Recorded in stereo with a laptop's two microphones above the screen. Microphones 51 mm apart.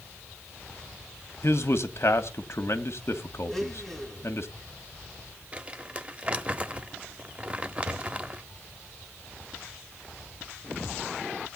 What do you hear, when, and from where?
1.4 s a man speaking: 60° left (ahead or behind), 1.3 m
3.5 s a blender: centre (ahead or behind), 3 m
5.5 s crumpling: 25° right (ahead or behind), 0.8 m